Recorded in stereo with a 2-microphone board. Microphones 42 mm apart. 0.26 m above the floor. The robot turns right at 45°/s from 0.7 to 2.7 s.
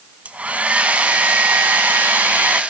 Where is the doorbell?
I don't hear a doorbell.